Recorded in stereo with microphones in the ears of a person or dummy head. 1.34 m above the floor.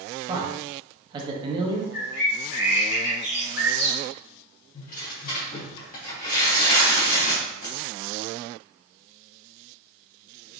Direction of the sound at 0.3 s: 25° right (ahead or behind).